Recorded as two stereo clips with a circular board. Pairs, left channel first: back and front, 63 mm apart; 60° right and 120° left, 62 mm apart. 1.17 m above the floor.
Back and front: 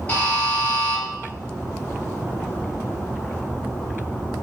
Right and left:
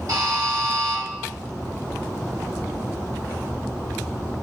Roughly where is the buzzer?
Behind left.